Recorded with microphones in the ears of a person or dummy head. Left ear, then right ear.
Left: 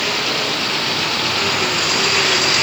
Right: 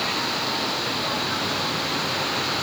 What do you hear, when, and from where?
Only background noise.